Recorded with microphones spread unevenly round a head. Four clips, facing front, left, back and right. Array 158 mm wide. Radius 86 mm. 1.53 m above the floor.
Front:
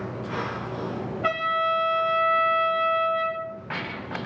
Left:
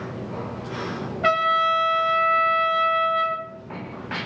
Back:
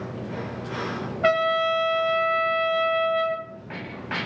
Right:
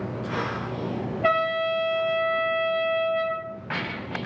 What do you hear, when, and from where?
1.2 s a trumpet: straight behind, 1.8 m